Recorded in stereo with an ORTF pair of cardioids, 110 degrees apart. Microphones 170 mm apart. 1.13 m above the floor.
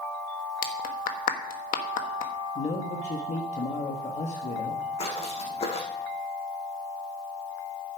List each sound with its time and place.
0.6 s a clap: 55° left, 1.5 m
2.5 s a man speaking: 40° left, 1.4 m
5.0 s footsteps: 40° left, 3.5 m